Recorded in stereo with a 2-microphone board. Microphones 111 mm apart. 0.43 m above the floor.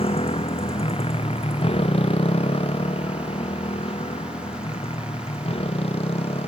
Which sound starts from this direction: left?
A motorcycle, at 0.0 s.